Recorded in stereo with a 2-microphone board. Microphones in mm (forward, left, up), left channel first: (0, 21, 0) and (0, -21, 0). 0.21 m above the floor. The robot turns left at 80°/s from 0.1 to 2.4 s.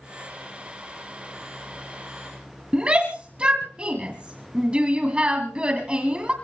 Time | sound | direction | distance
2.7 | a shout | 25° right (ahead or behind) | 1.6 m